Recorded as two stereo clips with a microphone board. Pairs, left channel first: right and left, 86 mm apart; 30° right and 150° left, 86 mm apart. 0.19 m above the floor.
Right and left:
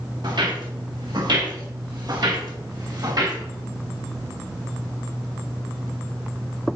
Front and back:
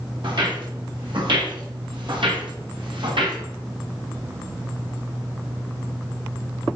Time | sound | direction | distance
0.2 | footsteps | 120° left | 5.5 m